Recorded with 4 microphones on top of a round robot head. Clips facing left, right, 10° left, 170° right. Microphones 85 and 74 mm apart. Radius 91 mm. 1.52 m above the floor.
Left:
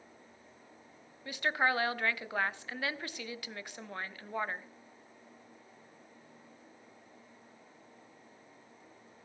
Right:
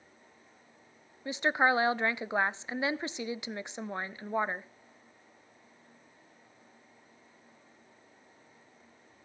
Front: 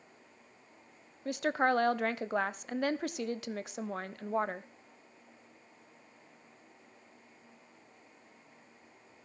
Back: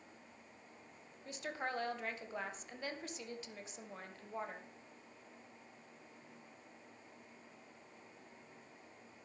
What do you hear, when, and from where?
1.2 s a woman speaking: 20° right, 0.8 m